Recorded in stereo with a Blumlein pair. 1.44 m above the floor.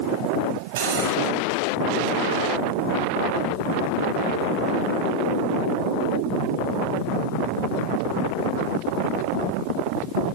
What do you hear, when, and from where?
0.8 s cutlery clinking: 60° right, 4.5 m